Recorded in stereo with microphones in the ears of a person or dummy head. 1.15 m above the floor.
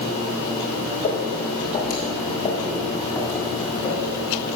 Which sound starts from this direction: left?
Footsteps, at 1.0 s.